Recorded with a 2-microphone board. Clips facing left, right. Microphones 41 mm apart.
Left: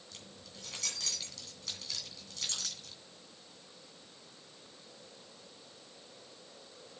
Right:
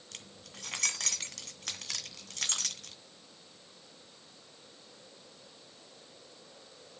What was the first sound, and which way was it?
Keys jangling, 65° right (ahead or behind).